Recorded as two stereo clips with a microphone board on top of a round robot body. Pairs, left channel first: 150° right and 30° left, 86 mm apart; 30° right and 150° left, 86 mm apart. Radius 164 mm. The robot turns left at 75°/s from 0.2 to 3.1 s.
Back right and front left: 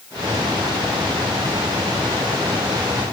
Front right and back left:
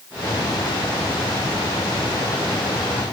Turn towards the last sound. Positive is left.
No sound to turn to.